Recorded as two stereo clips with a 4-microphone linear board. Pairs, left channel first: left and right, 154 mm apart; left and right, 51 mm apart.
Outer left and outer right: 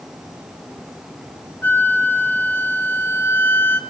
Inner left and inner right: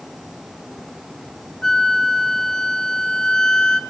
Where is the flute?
15° left (ahead or behind), 0.9 m.